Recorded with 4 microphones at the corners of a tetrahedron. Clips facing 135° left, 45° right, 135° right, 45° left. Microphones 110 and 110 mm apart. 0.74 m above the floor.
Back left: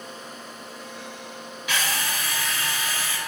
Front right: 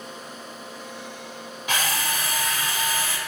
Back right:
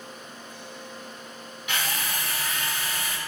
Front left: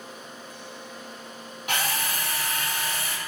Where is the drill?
5° right, 2 m.